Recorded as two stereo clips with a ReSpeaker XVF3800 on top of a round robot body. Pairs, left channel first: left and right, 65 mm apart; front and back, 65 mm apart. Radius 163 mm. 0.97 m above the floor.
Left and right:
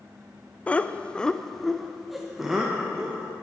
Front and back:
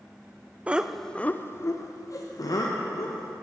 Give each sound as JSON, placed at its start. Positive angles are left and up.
{"t": 0.7, "sound": "laughter", "azimuth_deg": 135, "distance_m": 0.7}